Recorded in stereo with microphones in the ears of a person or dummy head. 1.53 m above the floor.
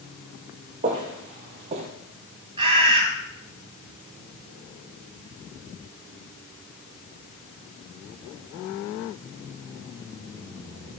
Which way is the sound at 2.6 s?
30° right (ahead or behind).